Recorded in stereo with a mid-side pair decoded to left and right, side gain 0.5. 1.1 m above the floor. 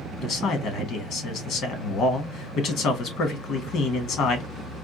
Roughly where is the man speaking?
Ahead left.